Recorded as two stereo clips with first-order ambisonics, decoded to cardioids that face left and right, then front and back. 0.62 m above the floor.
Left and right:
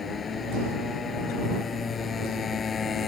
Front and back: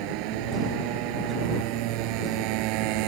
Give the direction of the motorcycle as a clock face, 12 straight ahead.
7 o'clock.